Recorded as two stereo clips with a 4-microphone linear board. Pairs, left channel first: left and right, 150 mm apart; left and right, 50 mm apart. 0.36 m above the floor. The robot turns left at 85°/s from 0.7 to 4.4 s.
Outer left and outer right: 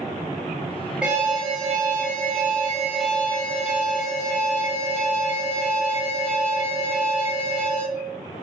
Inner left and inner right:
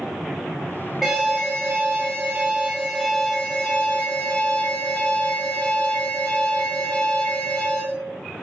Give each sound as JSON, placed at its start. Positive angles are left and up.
{"t": 1.0, "sound": "an alarm", "azimuth_deg": -5, "distance_m": 1.0}